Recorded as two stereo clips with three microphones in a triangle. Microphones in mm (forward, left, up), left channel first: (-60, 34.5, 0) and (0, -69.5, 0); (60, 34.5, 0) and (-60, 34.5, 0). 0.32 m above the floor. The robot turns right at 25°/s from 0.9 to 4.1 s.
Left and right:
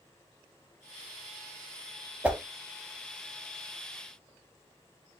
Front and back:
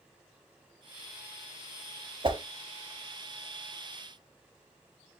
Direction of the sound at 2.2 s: 140° right.